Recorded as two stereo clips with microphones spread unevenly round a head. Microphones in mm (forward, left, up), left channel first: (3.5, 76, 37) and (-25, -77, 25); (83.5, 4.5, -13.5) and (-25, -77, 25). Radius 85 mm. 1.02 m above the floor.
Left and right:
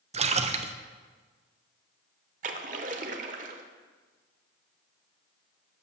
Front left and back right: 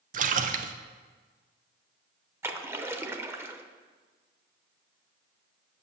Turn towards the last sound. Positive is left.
turn(degrees=-110)